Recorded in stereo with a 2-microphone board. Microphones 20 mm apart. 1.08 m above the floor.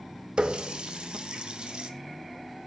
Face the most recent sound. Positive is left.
turn(degrees=-50)  # may be behind; listen again after turning